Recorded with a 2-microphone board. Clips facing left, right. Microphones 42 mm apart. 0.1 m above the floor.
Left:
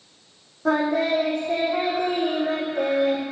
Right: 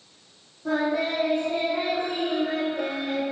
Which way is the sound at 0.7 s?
70° left (ahead or behind).